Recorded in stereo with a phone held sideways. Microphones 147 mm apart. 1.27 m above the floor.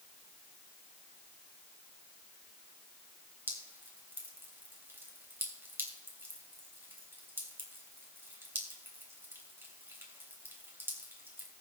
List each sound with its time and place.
3.5 s dripping: 15° right (ahead or behind), 3 m